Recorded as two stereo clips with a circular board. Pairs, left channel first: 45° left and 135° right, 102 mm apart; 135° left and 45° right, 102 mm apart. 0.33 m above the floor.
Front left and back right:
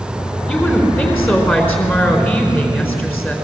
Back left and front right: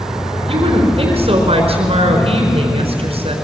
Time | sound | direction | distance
0.5 | a woman speaking | 30° right | 4.5 m